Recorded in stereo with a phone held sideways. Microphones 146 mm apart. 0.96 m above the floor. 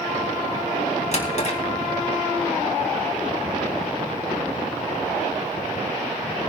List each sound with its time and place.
1.1 s a drawer: 50° left (ahead or behind), 2.5 m